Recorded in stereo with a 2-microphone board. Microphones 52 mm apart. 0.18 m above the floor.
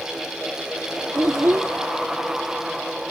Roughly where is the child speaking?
Right.